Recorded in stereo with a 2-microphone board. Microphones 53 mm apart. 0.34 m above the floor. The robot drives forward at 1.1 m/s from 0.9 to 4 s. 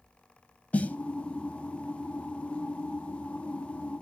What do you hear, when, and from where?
0.7 s a snare drum: 30° left (ahead or behind), 0.6 m